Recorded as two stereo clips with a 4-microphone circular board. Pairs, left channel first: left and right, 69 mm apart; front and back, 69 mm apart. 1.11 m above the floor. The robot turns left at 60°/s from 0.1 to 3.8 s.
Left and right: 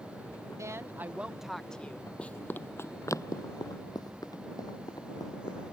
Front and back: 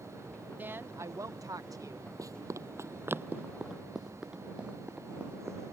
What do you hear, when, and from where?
0.6 s a woman speaking: 120° right; by 2.1 s 150° left
2.2 s running footsteps: 165° left; by 5.6 s 110° left